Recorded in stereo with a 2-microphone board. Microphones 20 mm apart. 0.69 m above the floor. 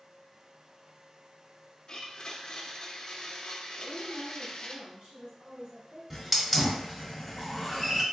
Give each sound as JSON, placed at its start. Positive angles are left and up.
{"t": 1.9, "sound": "a blender", "side_deg": 50, "distance_m": 0.6}
{"t": 3.8, "sound": "a woman speaking", "side_deg": -70, "distance_m": 1.7}
{"t": 6.1, "sound": "a hiss", "side_deg": -10, "distance_m": 1.0}